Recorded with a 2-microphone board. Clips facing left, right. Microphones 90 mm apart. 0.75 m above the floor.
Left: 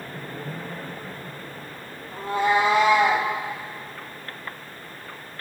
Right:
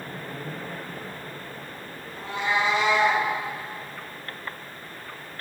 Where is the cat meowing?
45° left (ahead or behind), 2.5 m; by 3.3 s 55° left (ahead or behind), 2 m.